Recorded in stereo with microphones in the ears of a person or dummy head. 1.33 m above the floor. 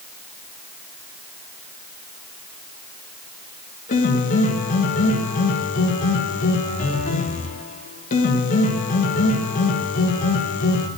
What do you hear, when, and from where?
3.9 s a piano: 40° left (ahead or behind), 1.9 m